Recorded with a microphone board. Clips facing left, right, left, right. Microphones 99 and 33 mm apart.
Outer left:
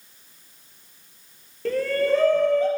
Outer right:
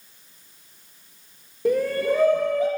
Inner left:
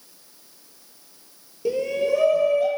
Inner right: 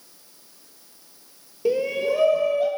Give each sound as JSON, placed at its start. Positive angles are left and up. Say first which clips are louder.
{"t": 1.6, "sound": "a shout", "louder": "even, even", "side_deg": -15, "distance_m": 2.0}